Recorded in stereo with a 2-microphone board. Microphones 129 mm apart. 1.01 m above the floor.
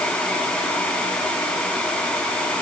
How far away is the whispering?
I don't hear whispering.